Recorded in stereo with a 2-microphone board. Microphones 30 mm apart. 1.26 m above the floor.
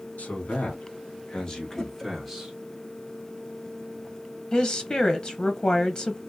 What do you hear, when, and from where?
0.2 s a man speaking: 65° left (ahead or behind), 1.7 m; by 2.5 s 10° right (ahead or behind), 1.4 m
1.8 s a whoosh: 20° left (ahead or behind), 0.8 m
4.5 s a woman speaking: 30° left (ahead or behind), 0.6 m